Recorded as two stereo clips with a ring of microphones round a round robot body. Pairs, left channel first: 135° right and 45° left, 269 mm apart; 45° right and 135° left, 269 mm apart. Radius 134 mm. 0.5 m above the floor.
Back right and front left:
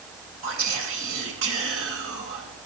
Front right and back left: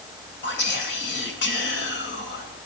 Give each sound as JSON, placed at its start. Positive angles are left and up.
{"t": 0.4, "sound": "whispering", "azimuth_deg": 5, "distance_m": 2.5}